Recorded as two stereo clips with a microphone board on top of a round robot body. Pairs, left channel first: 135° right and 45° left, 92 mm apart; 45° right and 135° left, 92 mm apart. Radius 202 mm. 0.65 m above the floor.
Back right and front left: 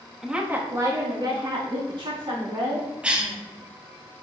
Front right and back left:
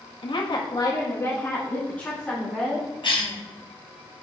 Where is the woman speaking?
40° right, 1.5 m; by 2.9 s 40° left, 3.5 m.